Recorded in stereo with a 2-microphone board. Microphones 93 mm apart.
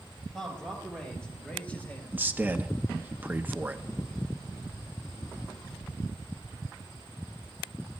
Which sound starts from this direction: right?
A man speaking, at 2.1 s.